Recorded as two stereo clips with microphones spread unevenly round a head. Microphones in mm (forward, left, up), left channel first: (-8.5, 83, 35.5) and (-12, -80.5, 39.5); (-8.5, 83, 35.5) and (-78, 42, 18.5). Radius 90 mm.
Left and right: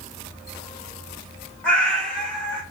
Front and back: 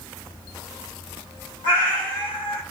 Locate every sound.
1.6 s a cat meowing: 5° left, 1.2 m